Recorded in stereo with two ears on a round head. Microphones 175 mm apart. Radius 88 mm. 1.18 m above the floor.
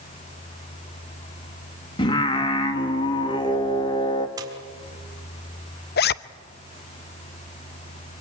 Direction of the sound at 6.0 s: 55° left (ahead or behind).